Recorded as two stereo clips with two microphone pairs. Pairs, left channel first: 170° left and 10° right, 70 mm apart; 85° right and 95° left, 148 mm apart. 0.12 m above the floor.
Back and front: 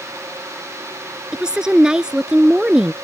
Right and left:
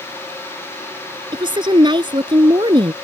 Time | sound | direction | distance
1.3 | a woman speaking | 65° left | ?